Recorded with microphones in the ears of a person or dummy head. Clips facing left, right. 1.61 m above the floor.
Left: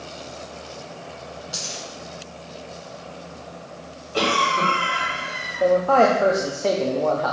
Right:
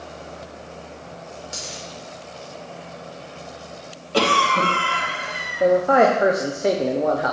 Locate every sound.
1.5 s a dropped coin: 30° right (ahead or behind), 2.5 m
4.1 s a cough: 75° right (ahead or behind), 2.5 m
5.6 s a man speaking: 15° right (ahead or behind), 0.7 m